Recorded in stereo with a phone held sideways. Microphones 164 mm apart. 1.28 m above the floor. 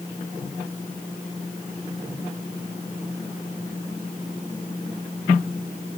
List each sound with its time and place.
Only background noise.